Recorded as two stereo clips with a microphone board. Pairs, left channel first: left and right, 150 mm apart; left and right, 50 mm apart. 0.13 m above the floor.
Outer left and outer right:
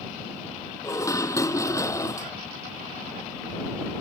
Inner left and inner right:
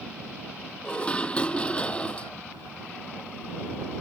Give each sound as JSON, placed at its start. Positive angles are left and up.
{"t": 0.8, "sound": "dishes clattering", "side_deg": 20}